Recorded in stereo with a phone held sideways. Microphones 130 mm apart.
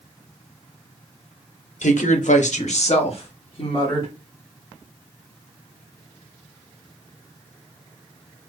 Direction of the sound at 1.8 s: 75° left (ahead or behind).